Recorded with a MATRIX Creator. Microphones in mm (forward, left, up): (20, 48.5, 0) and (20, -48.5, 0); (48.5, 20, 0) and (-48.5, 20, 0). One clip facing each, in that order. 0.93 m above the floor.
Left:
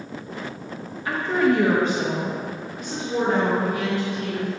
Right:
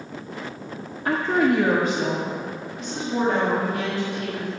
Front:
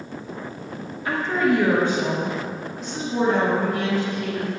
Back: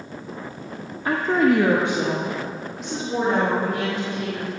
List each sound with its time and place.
1.1 s a woman speaking: 130° right, 0.6 m; by 4.5 s 160° left, 3.5 m